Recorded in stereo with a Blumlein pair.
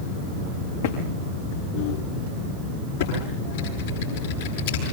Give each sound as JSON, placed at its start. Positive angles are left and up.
{"t": 0.8, "sound": "footsteps", "azimuth_deg": 60, "distance_m": 7.0}
{"t": 3.0, "sound": "typing on a keyboard", "azimuth_deg": 60, "distance_m": 10.0}